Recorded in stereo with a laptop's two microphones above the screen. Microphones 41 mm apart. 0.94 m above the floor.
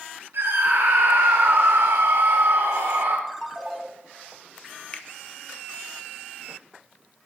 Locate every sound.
0.3 s a scream: 70° right (ahead or behind), 0.6 m
3.3 s a ringtone: 5° left (ahead or behind), 0.9 m
4.9 s a finger snap: 30° left (ahead or behind), 0.6 m